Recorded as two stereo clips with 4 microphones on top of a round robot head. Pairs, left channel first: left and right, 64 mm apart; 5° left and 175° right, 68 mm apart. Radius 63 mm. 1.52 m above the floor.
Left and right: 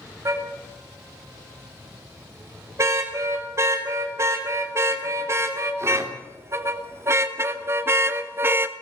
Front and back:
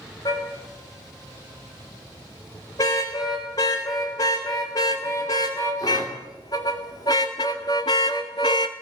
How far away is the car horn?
About 6 m.